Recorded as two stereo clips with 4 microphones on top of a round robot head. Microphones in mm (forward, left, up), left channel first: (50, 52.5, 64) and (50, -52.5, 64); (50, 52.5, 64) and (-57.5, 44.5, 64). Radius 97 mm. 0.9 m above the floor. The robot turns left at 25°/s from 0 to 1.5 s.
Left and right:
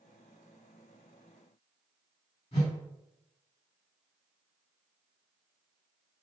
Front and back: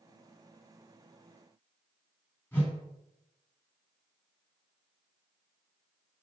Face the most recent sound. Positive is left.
turn(degrees=75)